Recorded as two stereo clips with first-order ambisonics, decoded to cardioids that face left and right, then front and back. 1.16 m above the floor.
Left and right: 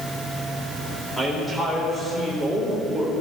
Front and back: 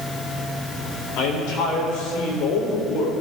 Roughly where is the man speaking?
Ahead.